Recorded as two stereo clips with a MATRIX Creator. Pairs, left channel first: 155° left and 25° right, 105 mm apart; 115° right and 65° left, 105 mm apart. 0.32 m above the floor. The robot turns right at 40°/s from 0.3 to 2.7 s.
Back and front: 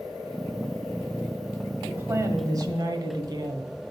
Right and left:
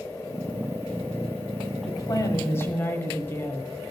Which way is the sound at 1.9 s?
85° right.